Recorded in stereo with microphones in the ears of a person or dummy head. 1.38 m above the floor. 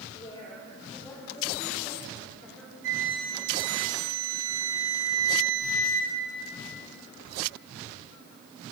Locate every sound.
0.1 s a woman speaking: 40° left (ahead or behind), 5 m; by 2.7 s 10° left (ahead or behind), 5.5 m
2.8 s a flute: 85° right, 5.5 m